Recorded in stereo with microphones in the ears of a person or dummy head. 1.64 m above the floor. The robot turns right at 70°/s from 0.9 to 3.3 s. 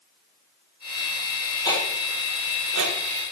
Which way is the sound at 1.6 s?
25° left (ahead or behind).